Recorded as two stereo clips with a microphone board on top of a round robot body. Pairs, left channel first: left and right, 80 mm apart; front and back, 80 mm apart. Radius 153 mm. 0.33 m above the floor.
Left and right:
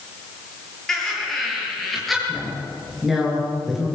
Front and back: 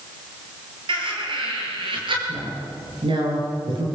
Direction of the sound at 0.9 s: 175° left.